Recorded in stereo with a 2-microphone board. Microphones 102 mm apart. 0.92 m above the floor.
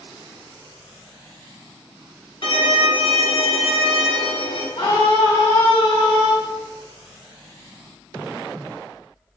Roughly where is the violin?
Left.